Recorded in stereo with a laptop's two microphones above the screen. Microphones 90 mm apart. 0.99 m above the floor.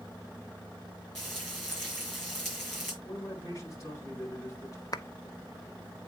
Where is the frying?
5° left (ahead or behind), 4.5 m.